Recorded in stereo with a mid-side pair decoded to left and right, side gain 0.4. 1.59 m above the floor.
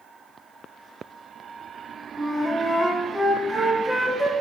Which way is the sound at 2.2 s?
Straight ahead.